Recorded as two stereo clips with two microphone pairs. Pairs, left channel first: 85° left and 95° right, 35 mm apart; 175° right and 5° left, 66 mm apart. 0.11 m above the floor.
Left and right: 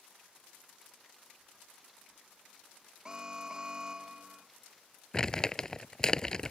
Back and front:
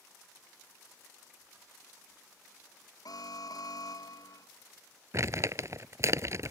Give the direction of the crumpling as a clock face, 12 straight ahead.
11 o'clock.